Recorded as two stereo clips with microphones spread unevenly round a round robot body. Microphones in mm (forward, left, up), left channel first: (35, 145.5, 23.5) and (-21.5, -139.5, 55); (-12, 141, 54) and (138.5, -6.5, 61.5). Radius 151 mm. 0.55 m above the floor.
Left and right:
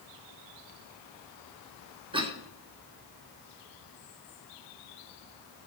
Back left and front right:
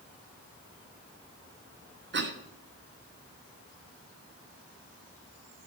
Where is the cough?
25° right, 2.0 m.